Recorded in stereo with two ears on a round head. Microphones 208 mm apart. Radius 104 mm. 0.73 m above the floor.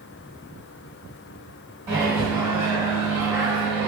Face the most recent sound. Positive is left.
turn(degrees=-20)  # may be behind; listen again after turning